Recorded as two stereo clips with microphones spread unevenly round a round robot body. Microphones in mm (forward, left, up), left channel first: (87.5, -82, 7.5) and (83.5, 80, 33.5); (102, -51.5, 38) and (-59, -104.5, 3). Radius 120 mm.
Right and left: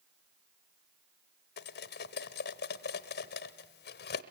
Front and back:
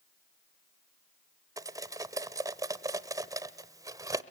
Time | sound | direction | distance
1.6 | cutlery clinking | 95° right | 1.0 m